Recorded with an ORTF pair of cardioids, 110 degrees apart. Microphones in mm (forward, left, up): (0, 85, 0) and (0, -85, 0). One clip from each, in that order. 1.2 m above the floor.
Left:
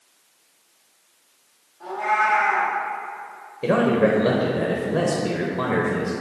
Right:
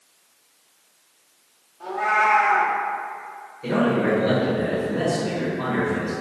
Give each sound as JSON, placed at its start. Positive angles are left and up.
{"t": 1.8, "sound": "a cat meowing", "azimuth_deg": -20, "distance_m": 1.3}
{"t": 3.6, "sound": "a man speaking", "azimuth_deg": 70, "distance_m": 0.7}